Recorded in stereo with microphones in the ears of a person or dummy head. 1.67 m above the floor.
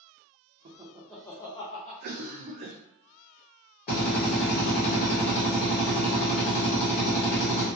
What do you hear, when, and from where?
0.7 s laughter: 35° right (ahead or behind), 0.5 m; by 1.9 s 35° left (ahead or behind), 0.9 m
2.0 s a cough: 45° right (ahead or behind), 0.6 m
3.9 s a drill: 45° left (ahead or behind), 1.2 m